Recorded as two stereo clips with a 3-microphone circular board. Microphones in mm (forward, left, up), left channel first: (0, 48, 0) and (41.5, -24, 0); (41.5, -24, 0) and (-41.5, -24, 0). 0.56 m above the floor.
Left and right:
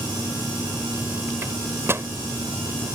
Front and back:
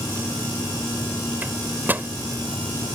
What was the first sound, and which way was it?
A microwave, 115° right.